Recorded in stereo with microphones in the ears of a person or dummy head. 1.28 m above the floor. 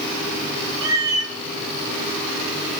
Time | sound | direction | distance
0.8 | a cat meowing | 20° right (ahead or behind) | 0.7 m